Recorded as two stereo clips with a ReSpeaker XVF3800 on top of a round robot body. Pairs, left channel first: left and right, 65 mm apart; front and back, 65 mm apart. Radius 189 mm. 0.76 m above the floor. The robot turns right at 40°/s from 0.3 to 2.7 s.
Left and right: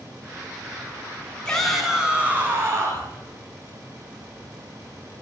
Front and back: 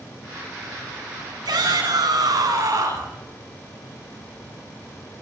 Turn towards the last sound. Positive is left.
turn(degrees=-140)